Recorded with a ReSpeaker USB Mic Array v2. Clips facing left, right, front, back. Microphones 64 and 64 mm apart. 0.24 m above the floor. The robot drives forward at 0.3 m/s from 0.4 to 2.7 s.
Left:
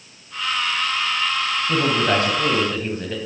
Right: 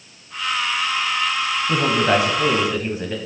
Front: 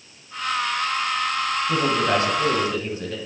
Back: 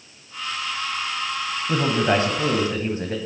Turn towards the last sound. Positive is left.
turn(degrees=-165)